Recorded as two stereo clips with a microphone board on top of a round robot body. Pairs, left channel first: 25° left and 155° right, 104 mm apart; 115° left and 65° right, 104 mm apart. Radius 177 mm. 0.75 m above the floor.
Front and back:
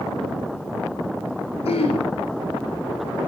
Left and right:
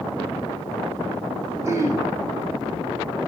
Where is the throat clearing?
5° right, 2.5 m.